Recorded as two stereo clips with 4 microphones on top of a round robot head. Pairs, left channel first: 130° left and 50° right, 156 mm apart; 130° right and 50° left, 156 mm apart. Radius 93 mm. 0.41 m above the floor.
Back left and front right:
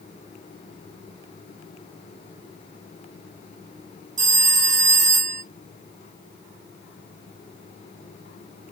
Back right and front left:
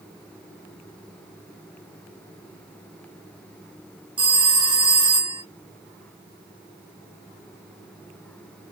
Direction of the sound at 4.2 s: 10° right.